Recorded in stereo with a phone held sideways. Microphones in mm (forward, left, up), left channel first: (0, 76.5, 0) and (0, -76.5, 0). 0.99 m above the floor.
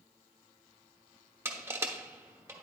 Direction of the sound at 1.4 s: 15° right (ahead or behind).